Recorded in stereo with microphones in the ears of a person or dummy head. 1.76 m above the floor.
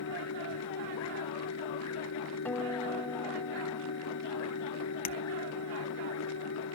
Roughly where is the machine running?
Left.